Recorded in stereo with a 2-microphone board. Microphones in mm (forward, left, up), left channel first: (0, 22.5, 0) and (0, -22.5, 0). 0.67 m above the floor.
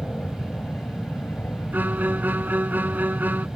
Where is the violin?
45° right (ahead or behind).